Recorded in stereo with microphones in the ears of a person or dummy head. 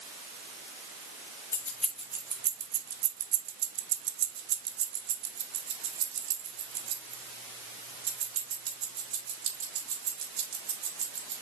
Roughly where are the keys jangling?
Centre.